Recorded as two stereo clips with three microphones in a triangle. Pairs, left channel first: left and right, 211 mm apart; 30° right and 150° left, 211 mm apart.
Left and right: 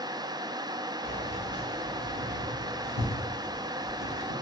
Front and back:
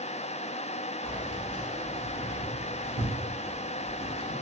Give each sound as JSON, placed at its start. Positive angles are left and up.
{"t": 1.0, "sound": "keys jangling", "azimuth_deg": 45, "distance_m": 1.3}